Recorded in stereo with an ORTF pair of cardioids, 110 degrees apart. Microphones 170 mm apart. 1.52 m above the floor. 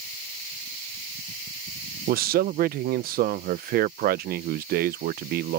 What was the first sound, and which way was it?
A man speaking, 70° right.